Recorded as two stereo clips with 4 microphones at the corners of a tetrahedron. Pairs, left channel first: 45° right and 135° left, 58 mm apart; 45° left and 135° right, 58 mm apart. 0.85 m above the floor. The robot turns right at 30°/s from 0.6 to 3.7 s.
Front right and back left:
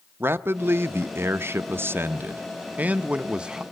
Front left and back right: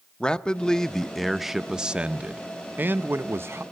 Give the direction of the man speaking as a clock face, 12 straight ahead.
8 o'clock.